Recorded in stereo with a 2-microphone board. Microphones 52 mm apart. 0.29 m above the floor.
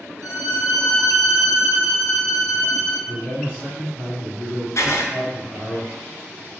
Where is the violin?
70° right (ahead or behind), 1.7 m.